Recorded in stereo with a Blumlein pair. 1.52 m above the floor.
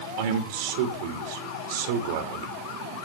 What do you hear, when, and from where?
0.2 s a man speaking: 50° right, 2.5 m